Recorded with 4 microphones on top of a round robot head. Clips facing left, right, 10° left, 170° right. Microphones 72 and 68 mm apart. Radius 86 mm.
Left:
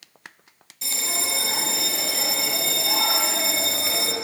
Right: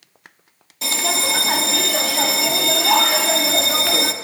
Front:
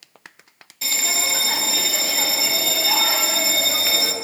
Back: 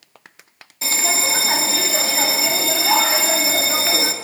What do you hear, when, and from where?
0.8 s a bell: 110° right, 2.0 m